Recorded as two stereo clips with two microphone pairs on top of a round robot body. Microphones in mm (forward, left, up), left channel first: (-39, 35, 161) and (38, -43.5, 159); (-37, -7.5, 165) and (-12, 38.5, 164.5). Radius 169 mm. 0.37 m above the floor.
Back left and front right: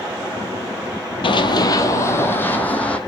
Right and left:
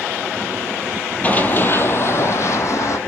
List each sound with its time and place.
1.2 s running footsteps: 175° left, 0.9 m; by 3.0 s 145° right, 1.9 m